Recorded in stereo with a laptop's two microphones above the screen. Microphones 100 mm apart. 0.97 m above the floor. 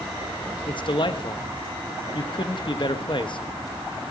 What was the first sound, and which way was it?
A man speaking, 50° left (ahead or behind).